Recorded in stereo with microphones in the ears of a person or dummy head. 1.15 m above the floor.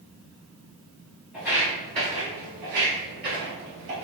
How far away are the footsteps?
About 1.2 m.